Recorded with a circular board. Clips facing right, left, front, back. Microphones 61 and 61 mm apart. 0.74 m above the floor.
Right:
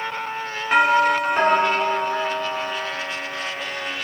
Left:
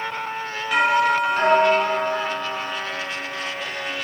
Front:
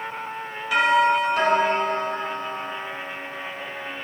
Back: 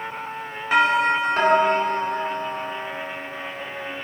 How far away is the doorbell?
About 3 m.